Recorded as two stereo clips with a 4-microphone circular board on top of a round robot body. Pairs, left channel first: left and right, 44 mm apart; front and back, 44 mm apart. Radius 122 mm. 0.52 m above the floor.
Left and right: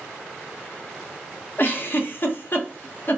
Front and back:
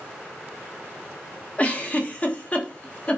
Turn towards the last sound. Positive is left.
turn(degrees=60)